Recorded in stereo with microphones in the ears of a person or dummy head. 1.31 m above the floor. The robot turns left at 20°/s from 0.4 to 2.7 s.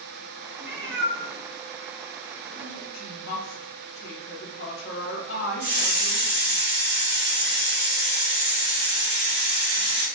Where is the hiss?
35° right (ahead or behind), 2.0 m.